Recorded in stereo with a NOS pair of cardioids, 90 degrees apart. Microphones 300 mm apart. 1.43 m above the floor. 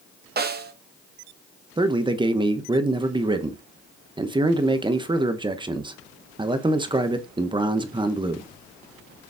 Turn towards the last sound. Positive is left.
turn(degrees=-15)